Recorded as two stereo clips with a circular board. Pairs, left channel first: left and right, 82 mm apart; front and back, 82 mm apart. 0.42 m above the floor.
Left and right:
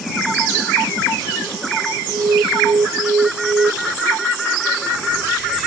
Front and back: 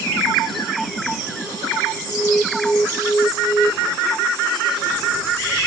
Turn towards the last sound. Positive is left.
turn(degrees=-80)